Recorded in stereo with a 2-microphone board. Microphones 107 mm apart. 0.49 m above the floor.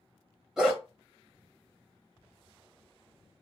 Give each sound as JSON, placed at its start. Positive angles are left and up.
{"t": 0.6, "sound": "a dog barking", "side_deg": -5, "distance_m": 1.0}